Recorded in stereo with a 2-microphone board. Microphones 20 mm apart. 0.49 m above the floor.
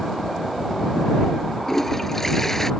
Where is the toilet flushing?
15° left (ahead or behind).